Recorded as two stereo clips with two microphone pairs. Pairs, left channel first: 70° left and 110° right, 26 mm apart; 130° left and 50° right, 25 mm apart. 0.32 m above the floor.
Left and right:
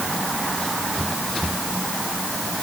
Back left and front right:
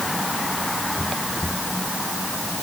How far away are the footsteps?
No footsteps in this recording.